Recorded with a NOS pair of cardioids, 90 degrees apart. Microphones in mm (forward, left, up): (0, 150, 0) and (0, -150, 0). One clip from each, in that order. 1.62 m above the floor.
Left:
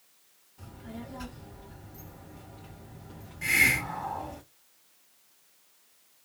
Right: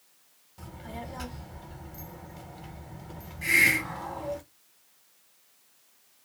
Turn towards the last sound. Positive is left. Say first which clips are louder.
# right 2 dB
turn(degrees=10)